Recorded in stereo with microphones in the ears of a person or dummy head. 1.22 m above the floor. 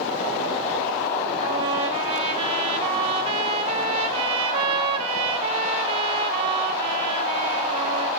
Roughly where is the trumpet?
Right.